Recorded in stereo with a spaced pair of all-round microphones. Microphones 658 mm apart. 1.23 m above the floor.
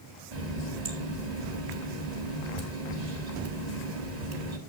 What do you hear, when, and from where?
0.3 s a running tap: 65° right (ahead or behind), 1.7 m